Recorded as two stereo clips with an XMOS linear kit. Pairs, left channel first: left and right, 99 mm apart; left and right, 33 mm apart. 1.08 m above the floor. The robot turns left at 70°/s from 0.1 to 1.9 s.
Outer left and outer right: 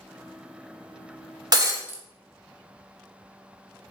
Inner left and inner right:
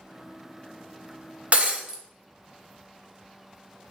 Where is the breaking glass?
45° right (ahead or behind), 0.6 m; by 2.0 s 25° right (ahead or behind), 0.6 m.